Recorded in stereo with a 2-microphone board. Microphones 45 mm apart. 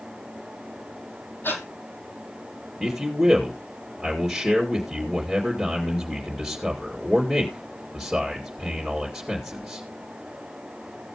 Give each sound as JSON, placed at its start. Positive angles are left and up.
{"t": 1.4, "sound": "breathing", "side_deg": 50, "distance_m": 1.5}
{"t": 2.8, "sound": "a man speaking", "side_deg": -5, "distance_m": 2.5}